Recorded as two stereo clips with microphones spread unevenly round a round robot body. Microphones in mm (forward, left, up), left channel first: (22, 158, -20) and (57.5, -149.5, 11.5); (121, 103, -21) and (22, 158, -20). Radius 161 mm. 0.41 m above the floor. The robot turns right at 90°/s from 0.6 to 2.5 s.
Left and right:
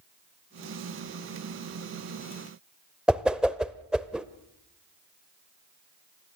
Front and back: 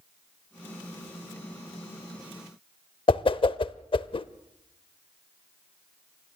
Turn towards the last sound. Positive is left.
turn(degrees=5)